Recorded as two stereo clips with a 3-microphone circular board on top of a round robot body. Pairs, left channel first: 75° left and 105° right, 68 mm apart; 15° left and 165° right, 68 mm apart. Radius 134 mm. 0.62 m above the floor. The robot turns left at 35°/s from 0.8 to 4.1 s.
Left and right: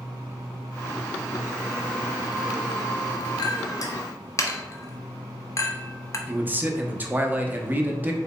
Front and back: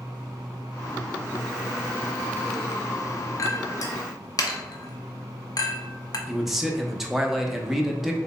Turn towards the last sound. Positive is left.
turn(degrees=-85)